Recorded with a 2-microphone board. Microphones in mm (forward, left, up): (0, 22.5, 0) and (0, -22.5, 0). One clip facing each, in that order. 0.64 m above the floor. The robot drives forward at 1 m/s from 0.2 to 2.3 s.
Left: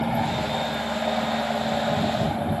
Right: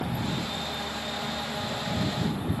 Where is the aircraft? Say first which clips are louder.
Left 7 dB; 70° left (ahead or behind).